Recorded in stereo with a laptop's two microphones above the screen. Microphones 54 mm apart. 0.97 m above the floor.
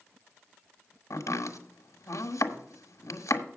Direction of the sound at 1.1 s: 80° left.